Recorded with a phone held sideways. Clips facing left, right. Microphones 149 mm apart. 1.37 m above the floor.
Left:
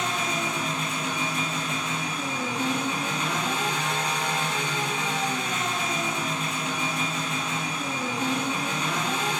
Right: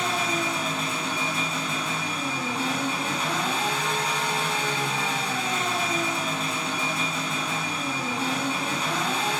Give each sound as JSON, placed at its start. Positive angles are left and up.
{"t": 0.0, "sound": "an engine running", "side_deg": -35, "distance_m": 2.5}